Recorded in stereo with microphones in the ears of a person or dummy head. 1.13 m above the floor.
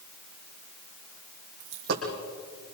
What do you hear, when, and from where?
1.6 s a dropped coin: 60° right (ahead or behind), 4 m